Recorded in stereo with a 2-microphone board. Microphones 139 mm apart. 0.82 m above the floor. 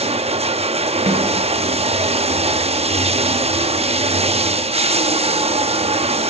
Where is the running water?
50° right (ahead or behind), 0.8 m.